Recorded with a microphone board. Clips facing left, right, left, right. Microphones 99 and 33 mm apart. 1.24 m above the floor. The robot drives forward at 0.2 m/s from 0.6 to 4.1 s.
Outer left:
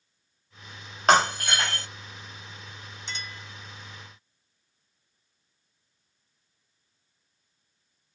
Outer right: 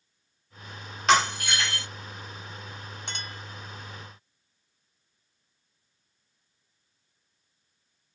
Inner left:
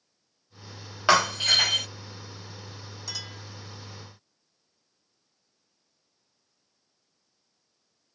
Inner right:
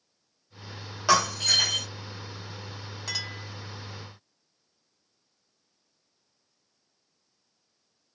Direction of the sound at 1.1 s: 45° left (ahead or behind).